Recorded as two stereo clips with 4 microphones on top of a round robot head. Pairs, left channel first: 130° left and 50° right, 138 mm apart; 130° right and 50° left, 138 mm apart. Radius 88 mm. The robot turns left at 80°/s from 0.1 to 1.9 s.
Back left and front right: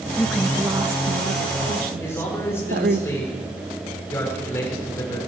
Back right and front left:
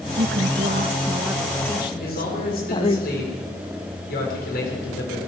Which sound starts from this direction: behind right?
A man speaking, at 2.0 s.